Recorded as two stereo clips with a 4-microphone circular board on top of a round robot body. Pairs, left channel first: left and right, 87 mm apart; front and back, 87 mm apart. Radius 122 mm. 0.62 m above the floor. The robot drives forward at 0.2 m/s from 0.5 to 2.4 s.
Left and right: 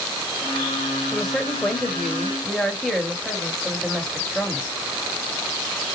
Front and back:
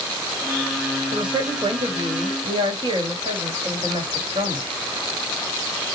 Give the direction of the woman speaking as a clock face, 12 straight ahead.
6 o'clock.